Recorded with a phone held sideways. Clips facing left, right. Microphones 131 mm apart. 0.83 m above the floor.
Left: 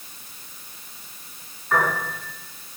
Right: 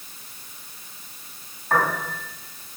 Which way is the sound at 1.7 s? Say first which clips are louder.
Even; 55° right (ahead or behind).